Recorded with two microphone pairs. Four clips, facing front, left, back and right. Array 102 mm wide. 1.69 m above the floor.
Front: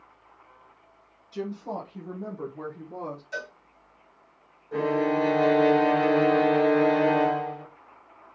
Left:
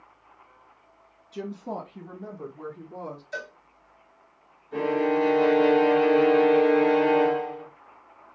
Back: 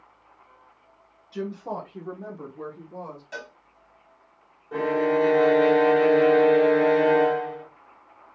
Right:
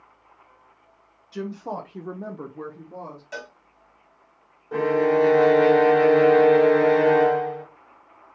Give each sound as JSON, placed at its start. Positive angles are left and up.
{"t": 1.3, "sound": "a woman speaking", "azimuth_deg": -120, "distance_m": 1.6}
{"t": 3.3, "sound": "a cowbell", "azimuth_deg": -110, "distance_m": 1.8}
{"t": 4.7, "sound": "a violin", "azimuth_deg": -95, "distance_m": 1.0}